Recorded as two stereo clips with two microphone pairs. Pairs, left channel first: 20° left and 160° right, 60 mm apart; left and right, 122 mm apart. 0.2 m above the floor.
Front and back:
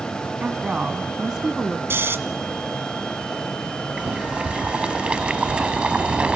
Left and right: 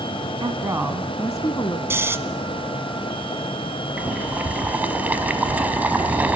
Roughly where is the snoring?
Behind right.